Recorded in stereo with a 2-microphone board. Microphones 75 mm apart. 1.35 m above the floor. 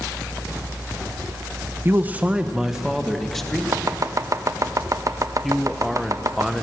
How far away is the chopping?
About 0.6 m.